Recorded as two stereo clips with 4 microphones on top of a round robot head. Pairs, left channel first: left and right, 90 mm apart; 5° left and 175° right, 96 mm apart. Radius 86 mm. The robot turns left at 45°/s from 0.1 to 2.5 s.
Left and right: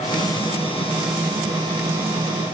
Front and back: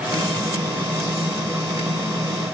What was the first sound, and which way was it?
Only background noise.